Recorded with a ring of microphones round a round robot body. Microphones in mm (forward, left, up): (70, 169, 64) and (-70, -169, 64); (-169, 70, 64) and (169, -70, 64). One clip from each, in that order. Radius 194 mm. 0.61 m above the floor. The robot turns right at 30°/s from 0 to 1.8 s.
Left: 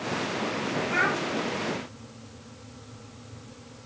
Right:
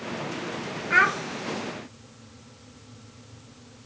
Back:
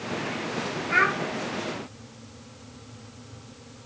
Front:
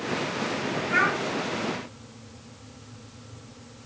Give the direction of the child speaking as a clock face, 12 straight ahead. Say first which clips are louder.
Right 6 dB, back 1 dB; 4 o'clock.